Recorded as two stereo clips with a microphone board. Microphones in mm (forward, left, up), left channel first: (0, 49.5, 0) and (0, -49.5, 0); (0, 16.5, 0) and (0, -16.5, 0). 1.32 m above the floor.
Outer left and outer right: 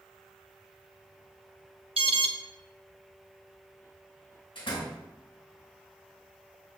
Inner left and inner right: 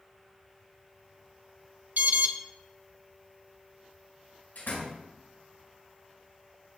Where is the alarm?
85° right, 1.0 m.